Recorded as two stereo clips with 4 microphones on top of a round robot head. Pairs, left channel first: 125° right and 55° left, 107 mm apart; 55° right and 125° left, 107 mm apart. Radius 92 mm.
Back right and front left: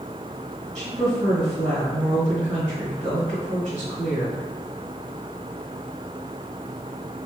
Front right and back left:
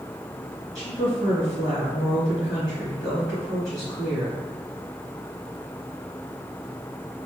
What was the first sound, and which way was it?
A woman speaking, 30° left.